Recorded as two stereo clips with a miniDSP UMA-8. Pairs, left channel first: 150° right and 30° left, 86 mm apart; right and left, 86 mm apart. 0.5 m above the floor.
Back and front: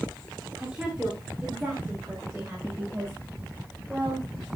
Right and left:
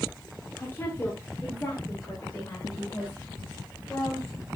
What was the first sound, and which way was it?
A woman speaking, 45° right.